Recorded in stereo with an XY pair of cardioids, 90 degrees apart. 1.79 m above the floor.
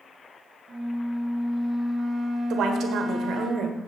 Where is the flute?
20° right, 1.7 m.